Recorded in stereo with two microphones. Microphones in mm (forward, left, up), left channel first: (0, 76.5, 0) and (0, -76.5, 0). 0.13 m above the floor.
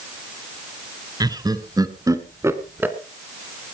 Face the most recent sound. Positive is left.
turn(degrees=-10)  # may be behind; listen again after turning